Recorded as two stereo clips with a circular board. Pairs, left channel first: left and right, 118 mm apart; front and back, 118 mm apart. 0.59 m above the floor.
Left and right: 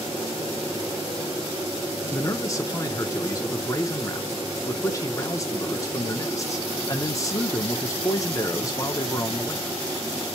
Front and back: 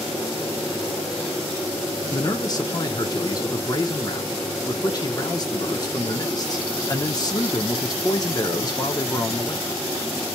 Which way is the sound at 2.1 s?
40° left.